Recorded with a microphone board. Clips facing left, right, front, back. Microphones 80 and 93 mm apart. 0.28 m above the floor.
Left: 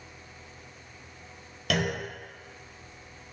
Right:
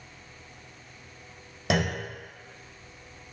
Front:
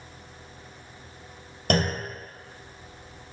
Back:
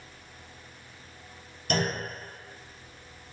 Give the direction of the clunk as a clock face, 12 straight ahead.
1 o'clock.